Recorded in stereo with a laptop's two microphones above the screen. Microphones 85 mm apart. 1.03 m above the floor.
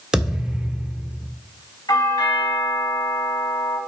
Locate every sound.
0.1 s a thud: 5° right (ahead or behind), 1.5 m
1.9 s a doorbell: 50° left (ahead or behind), 2.5 m